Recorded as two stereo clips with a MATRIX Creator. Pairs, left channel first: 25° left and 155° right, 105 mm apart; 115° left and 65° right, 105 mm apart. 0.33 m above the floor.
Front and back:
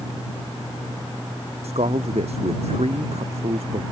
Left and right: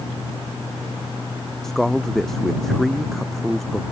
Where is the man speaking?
160° right.